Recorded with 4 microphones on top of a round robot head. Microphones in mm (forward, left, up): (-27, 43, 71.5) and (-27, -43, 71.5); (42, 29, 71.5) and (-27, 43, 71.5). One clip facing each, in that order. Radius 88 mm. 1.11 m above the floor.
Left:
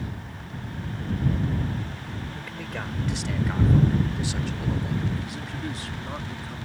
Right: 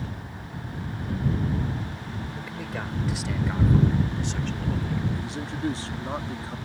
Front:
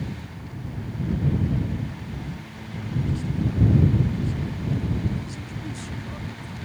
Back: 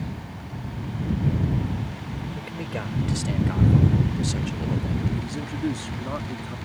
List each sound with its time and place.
2.4 s a man speaking: 170° right; by 5.1 s 165° left
5.2 s a man speaking: 150° right